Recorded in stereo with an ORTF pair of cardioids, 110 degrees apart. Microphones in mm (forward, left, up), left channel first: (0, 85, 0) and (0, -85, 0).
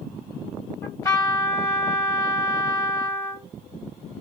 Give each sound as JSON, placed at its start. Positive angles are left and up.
{"t": 0.8, "sound": "a trumpet", "azimuth_deg": 20, "distance_m": 2.0}